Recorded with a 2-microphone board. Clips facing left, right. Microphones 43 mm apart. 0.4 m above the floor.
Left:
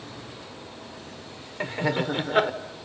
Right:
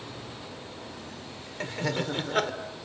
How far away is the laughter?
About 1.2 m.